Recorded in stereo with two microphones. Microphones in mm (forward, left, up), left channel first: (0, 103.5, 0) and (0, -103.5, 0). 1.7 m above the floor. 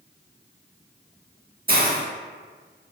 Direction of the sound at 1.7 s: 50° right (ahead or behind).